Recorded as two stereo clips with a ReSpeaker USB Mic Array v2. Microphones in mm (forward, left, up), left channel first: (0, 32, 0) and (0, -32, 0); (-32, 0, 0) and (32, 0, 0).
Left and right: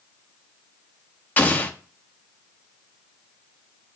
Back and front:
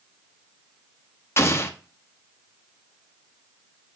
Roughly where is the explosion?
Behind left.